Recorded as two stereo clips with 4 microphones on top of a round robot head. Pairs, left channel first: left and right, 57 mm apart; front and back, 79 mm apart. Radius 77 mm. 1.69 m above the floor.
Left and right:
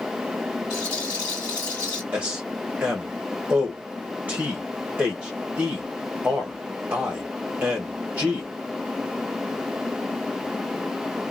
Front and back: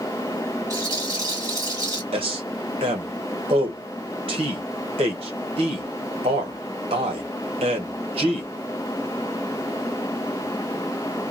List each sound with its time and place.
0.7 s a rattle: 145° left, 2.5 m
2.1 s a man speaking: 165° right, 1.2 m